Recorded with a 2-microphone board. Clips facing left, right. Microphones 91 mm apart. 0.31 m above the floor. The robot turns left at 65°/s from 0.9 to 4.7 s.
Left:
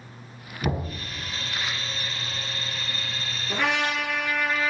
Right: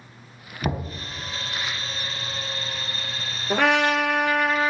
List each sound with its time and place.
0.6 s knocking: 20° right (ahead or behind), 1.8 m
3.5 s a trumpet: 65° right, 1.2 m; by 4.7 s 145° right, 1.2 m